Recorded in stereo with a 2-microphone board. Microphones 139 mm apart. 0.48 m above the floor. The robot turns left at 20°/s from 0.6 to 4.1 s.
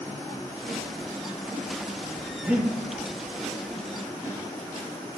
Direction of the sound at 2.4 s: 10° right (ahead or behind).